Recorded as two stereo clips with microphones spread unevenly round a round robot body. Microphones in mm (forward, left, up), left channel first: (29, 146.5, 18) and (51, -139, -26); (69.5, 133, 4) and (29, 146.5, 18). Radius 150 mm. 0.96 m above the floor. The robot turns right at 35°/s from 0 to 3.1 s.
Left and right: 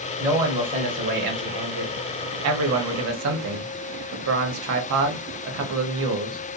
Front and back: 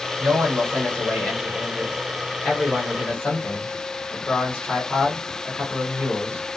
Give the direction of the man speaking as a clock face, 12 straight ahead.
5 o'clock.